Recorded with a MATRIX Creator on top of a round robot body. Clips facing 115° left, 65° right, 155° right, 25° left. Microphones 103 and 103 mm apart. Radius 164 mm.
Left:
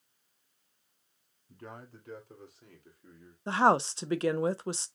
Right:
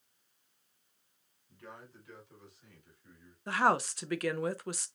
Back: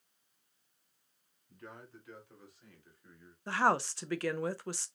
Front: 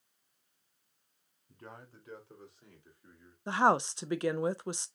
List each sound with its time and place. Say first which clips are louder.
1.5 s a man speaking: left 4 dB, even; 75° left, 3 m; by 3.4 s 100° left, 3 m
3.5 s a woman speaking: left 4 dB, front 3 dB; 75° left, 0.5 m